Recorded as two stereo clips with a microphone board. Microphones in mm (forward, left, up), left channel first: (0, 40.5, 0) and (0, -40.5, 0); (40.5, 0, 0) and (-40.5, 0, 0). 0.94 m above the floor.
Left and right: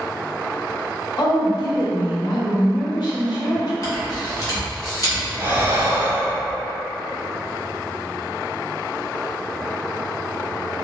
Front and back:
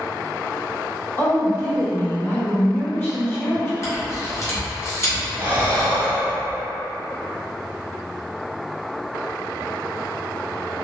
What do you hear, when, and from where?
1.2 s a woman speaking: 65° left, 1.1 m
3.8 s a camera shutter: 50° left, 1.3 m
5.4 s breathing: 130° right, 0.9 m